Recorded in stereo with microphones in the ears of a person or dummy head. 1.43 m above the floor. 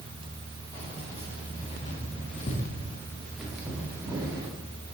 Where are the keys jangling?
30° left (ahead or behind), 2.5 m; by 4.5 s 15° right (ahead or behind), 2 m.